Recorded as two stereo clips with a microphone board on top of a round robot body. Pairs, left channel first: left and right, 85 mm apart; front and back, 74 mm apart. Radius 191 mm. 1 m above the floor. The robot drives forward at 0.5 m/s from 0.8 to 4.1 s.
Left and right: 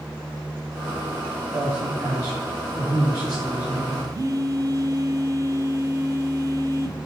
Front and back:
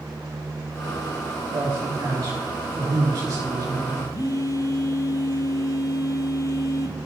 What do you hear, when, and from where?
1.5 s a man speaking: 160° right, 1.7 m; by 4.0 s 170° right, 3 m
4.1 s a phone buzzing: 40° right, 0.6 m